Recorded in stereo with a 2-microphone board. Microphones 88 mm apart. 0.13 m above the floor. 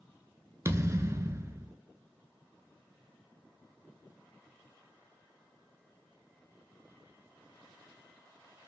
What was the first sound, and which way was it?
A thud, 35° right (ahead or behind).